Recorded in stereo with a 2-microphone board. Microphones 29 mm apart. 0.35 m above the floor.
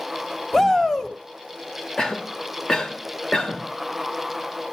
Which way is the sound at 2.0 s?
25° left (ahead or behind).